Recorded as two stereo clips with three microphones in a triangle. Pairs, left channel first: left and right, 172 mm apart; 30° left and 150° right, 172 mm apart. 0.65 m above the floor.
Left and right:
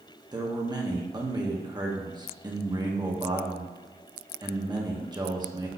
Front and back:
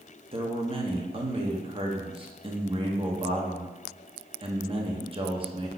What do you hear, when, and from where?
0.3 s a man speaking: 135° right, 0.8 m